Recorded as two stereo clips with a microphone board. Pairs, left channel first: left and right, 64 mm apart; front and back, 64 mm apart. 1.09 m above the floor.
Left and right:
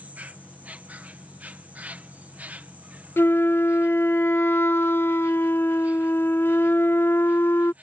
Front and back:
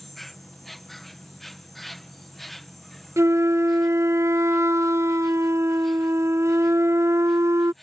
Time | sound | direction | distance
0.0 | an insect | 85° right | ?
3.2 | a flute | 140° left | ?